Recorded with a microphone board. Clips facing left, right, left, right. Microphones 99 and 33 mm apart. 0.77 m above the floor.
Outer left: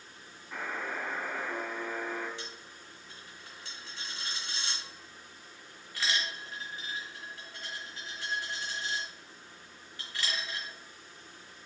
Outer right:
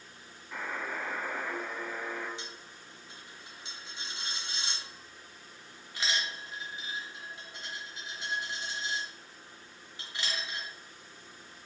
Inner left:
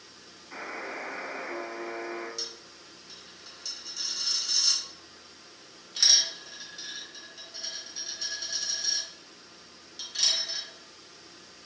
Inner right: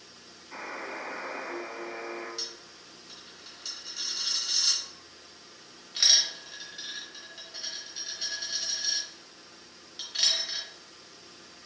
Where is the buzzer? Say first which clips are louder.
Even, inner left 1 dB; 10° left (ahead or behind), 0.9 m.